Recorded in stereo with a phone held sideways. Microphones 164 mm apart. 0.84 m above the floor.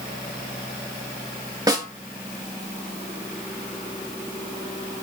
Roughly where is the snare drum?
Right.